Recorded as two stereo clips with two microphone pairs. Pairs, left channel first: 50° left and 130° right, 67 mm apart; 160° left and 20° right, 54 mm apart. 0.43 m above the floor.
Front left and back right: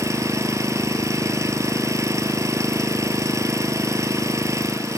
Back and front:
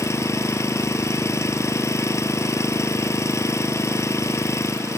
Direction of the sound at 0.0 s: 170° right.